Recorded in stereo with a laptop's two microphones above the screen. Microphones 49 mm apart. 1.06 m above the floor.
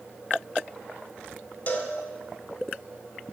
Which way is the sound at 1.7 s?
40° left (ahead or behind).